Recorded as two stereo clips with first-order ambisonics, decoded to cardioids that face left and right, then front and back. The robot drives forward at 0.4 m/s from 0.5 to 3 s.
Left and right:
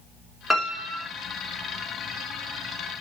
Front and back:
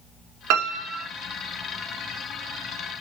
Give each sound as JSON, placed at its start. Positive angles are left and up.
{"t": 0.5, "sound": "a piano", "azimuth_deg": 180, "distance_m": 2.0}